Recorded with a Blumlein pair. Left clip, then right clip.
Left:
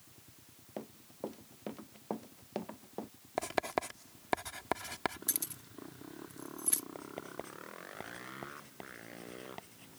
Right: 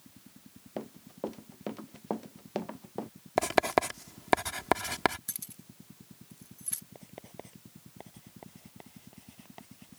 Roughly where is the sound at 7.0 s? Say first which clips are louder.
Left 4 dB; ahead.